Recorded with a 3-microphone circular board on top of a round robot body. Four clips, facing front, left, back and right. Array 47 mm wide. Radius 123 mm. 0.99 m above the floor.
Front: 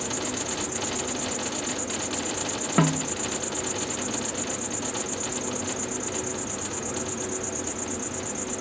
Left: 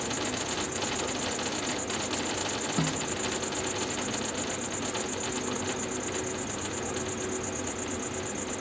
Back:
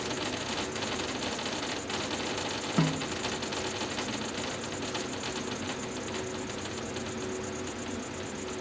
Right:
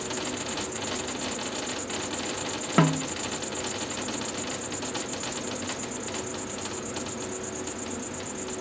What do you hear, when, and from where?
0.0 s an insect: 70° left
2.8 s a snare drum: 55° right